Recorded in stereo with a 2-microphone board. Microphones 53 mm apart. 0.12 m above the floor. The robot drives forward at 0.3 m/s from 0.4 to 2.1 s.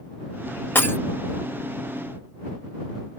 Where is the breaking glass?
40° left (ahead or behind), 0.6 m.